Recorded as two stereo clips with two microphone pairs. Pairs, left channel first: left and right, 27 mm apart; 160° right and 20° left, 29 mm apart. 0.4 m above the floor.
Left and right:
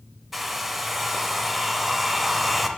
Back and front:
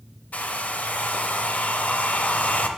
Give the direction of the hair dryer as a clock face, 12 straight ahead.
6 o'clock.